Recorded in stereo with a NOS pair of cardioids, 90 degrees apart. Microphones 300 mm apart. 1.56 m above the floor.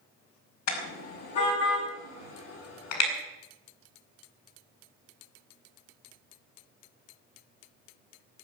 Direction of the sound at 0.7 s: 65° left.